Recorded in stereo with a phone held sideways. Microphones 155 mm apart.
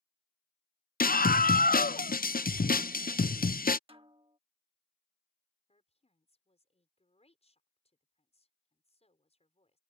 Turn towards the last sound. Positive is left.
turn(degrees=45)  # may be behind; listen again after turning